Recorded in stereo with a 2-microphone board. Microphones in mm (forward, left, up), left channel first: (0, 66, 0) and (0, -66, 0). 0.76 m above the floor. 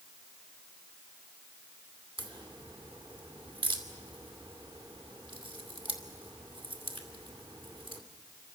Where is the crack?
40° right (ahead or behind), 2.5 m.